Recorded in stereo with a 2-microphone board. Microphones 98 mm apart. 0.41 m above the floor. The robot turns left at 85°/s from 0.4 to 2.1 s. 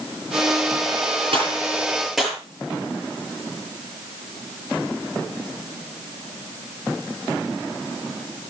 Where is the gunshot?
70° right (ahead or behind), 8.5 m; by 2.4 s 5° right (ahead or behind), 8.5 m.